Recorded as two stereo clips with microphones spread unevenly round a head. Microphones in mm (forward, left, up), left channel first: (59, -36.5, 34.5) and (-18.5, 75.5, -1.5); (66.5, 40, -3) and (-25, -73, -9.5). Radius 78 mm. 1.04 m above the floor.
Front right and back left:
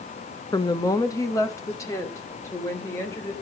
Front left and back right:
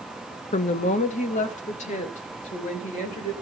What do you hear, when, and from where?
0.5 s a woman speaking: 10° left, 0.7 m; by 3.3 s 15° left, 4 m